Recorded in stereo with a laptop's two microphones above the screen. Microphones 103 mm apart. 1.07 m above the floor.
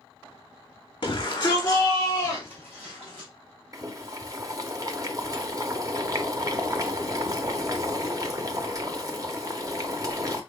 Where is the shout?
45° left (ahead or behind), 0.9 m; by 3.3 s 10° right (ahead or behind), 2.5 m.